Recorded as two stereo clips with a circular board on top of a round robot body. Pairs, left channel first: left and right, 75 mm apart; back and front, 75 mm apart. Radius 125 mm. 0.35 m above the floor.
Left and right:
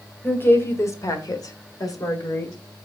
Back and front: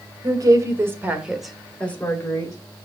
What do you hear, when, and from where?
0.2 s a woman speaking: 30° left, 1.9 m; by 2.6 s 135° left, 2 m